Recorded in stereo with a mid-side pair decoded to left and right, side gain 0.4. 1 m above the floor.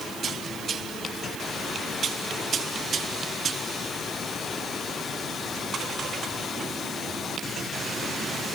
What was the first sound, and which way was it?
Only background noise.